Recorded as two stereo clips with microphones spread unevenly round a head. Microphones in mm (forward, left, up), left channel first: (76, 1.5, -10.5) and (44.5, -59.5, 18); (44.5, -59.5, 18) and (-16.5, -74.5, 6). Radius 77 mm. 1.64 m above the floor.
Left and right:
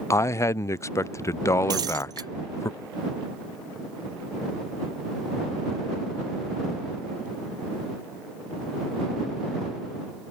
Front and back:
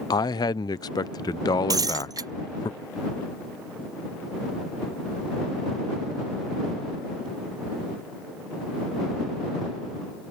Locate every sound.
0.1 s a man speaking: 10° left
1.7 s breaking glass: 145° right